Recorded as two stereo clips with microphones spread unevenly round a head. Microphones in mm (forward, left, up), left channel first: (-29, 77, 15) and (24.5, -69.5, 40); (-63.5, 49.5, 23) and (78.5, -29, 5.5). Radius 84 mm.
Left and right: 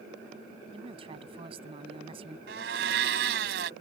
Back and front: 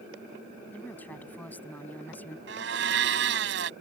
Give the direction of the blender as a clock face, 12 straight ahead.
2 o'clock.